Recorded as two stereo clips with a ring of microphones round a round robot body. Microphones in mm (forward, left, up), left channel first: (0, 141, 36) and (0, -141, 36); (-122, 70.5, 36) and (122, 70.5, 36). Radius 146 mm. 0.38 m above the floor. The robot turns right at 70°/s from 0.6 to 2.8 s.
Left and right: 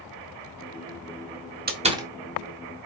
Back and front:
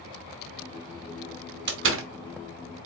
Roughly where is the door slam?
Ahead right.